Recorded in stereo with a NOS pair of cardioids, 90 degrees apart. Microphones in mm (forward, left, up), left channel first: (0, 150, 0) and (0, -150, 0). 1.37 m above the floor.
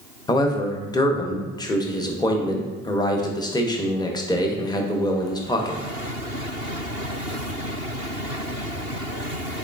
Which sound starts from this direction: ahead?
A man speaking, at 0.3 s.